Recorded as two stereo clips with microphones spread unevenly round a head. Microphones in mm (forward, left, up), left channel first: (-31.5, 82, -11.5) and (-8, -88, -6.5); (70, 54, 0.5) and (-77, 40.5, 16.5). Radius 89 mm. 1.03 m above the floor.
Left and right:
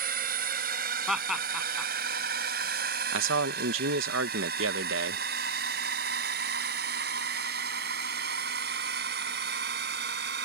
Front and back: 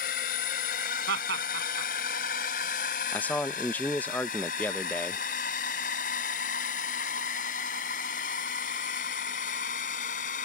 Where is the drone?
40° right; by 10.4 s 45° right.